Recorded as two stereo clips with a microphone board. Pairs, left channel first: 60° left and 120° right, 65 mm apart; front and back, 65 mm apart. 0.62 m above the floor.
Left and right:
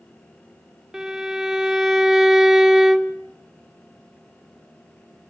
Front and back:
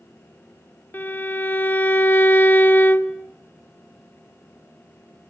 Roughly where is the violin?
Ahead right.